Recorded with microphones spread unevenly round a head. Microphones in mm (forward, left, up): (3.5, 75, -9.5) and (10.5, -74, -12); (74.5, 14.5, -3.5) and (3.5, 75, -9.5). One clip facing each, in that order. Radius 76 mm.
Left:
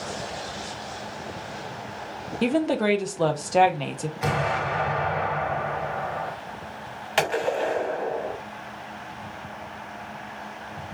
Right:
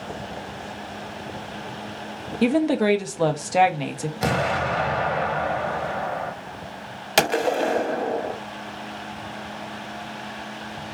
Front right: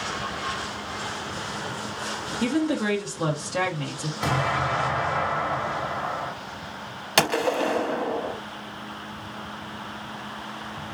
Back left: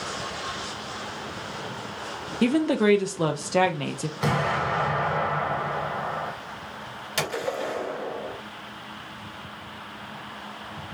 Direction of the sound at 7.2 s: 55° right.